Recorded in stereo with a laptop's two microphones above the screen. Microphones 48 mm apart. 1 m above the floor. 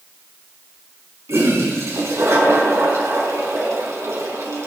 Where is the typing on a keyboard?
No typing on a keyboard in this recording.